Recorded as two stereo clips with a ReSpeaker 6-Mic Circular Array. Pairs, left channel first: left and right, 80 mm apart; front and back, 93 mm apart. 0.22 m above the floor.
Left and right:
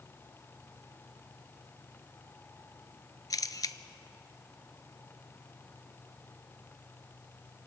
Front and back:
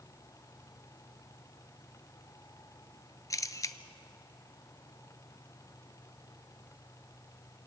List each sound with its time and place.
3.3 s a camera shutter: 50° left, 0.7 m